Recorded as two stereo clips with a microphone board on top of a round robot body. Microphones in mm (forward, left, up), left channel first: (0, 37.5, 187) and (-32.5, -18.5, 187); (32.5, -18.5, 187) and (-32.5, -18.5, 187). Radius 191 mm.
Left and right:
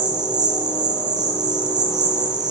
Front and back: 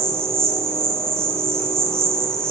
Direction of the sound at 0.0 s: 125° right.